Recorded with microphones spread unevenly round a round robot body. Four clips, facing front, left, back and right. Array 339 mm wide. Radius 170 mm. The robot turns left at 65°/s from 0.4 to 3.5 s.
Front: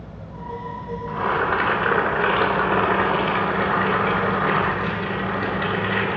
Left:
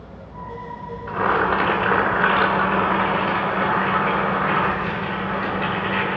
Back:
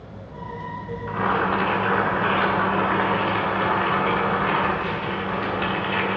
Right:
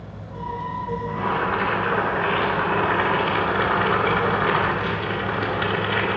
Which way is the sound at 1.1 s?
100° left.